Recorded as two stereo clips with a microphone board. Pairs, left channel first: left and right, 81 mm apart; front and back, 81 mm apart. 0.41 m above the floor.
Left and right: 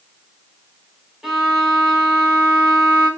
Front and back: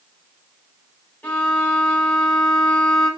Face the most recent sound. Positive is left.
turn(degrees=-10)